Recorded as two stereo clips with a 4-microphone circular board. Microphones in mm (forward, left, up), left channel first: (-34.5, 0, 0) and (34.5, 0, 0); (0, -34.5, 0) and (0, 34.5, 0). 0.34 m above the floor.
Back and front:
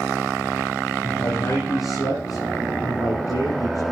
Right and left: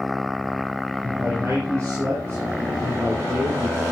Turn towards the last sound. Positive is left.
turn(degrees=145)